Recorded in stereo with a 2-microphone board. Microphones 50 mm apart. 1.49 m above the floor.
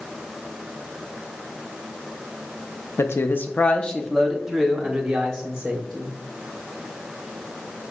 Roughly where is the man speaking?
Left.